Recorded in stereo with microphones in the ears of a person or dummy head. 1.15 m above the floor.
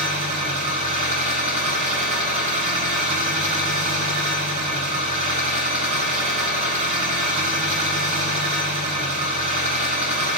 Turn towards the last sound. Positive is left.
turn(degrees=-35)  # may be behind; listen again after turning